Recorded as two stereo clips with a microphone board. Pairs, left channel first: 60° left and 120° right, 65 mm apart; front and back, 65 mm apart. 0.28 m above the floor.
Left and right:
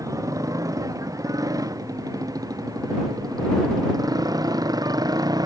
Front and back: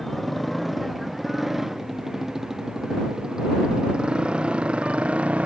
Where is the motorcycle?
90° right; by 5.5 s 110° right.